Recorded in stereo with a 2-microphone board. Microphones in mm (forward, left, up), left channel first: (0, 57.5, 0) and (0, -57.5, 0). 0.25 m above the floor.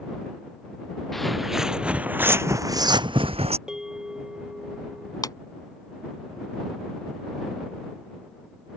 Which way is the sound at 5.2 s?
35° left (ahead or behind).